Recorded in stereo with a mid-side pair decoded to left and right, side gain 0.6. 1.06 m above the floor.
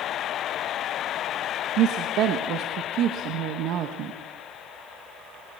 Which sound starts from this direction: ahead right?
A woman speaking, at 1.8 s.